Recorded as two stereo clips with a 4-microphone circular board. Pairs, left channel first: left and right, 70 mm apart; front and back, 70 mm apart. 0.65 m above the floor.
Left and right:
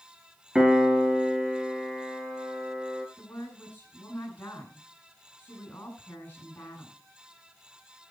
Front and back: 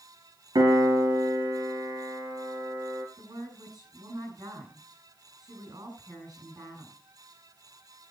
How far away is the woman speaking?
About 7.5 m.